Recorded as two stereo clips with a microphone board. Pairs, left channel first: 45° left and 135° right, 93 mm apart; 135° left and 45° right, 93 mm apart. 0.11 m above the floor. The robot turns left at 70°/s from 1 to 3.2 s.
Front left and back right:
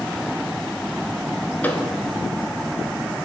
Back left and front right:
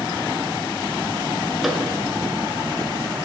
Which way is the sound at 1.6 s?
45° left.